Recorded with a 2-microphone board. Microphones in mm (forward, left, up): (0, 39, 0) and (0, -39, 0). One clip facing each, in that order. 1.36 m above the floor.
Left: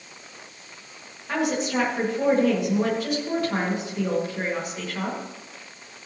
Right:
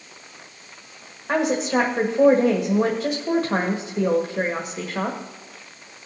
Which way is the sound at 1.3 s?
30° right (ahead or behind).